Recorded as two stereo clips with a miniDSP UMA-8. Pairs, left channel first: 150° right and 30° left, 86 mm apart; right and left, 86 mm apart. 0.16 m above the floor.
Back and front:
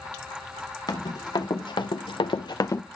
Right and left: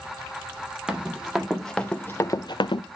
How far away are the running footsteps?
About 1.8 m.